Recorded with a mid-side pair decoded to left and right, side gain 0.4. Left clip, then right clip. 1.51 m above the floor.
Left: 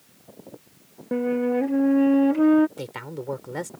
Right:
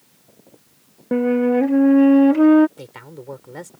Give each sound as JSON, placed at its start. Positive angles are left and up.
{"t": 1.1, "sound": "a flute", "azimuth_deg": -45}
{"t": 2.8, "sound": "a man speaking", "azimuth_deg": 30}